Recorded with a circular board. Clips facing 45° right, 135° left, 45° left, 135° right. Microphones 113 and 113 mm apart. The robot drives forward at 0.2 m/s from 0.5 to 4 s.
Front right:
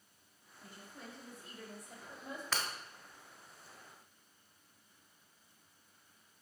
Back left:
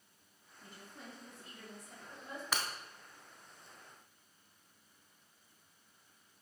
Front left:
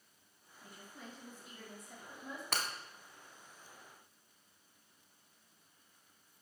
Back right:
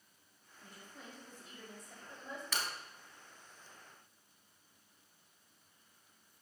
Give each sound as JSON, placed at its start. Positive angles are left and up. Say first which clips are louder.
{"t": 0.6, "sound": "a woman speaking", "louder": "front right 1 dB, front left 1 dB", "azimuth_deg": -60, "distance_m": 1.4}
{"t": 2.5, "sound": "breaking glass", "louder": "back left 1 dB, front left 2 dB", "azimuth_deg": 60, "distance_m": 0.6}